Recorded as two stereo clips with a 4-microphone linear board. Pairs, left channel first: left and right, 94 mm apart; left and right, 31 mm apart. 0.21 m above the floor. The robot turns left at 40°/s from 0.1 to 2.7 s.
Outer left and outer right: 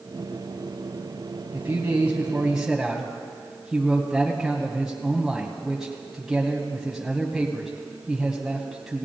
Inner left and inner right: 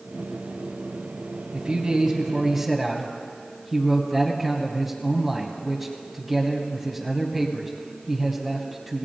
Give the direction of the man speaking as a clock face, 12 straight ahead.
4 o'clock.